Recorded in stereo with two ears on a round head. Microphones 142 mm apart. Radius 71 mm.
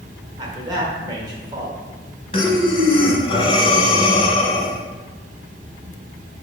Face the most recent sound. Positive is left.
turn(degrees=35)  # may be behind; listen again after turning